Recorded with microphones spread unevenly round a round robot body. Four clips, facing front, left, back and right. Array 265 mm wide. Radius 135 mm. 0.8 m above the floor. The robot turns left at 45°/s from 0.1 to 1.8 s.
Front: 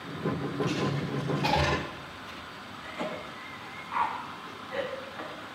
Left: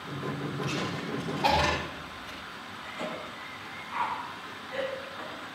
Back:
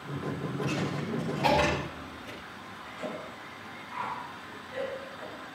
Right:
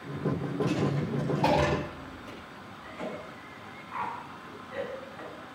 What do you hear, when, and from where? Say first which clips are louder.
0.6 s a dropped coin: right 7 dB, front 2 dB; 70° right, 6 m; by 2.4 s 125° right, 6 m
2.8 s a cough: left 1 dB, front 2 dB; 5° left, 8 m